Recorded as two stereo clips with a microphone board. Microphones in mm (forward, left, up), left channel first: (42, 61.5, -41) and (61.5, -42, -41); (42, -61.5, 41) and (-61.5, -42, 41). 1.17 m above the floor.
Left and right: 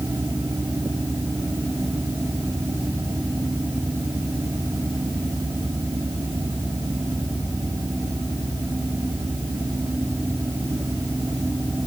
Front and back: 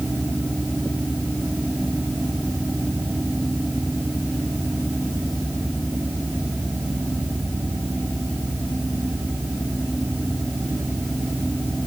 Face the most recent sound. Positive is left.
No sound to turn to.